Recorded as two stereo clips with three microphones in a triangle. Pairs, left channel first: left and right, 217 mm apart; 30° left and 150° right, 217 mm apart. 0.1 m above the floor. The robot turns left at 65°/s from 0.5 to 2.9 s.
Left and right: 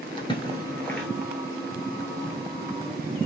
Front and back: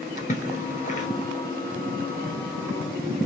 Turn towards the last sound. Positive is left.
turn(degrees=-120)